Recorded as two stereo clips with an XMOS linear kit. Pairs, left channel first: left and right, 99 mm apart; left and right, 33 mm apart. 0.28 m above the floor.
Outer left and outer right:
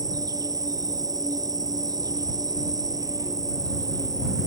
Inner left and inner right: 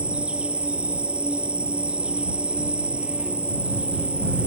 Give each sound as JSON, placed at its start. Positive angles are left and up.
{"t": 0.0, "sound": "an insect", "side_deg": -40}